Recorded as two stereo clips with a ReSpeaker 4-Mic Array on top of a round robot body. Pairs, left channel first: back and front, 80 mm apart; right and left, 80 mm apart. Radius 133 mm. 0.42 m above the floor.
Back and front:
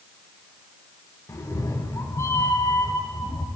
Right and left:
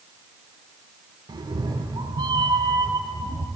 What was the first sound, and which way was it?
A cat meowing, 125° left.